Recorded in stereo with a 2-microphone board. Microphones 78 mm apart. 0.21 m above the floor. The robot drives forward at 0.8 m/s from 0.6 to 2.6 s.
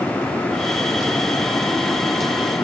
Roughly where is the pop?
I don't hear a pop.